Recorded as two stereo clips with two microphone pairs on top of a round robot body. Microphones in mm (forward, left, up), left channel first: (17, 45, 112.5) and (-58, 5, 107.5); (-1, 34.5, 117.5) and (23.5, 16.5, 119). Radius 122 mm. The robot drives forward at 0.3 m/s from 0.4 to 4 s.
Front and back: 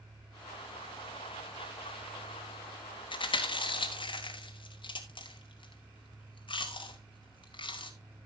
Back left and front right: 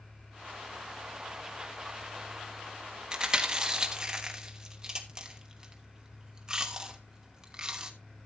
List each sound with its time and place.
3.1 s chewing: 25° left, 3 m; by 7.9 s 30° left, 2.5 m